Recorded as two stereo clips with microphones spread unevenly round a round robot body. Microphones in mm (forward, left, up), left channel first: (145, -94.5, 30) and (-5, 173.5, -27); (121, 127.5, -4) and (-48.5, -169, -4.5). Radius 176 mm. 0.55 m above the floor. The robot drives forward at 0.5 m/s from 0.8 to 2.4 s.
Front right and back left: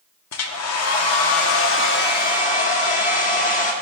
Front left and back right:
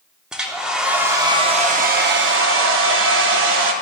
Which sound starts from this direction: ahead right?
A hair dryer, at 0.3 s.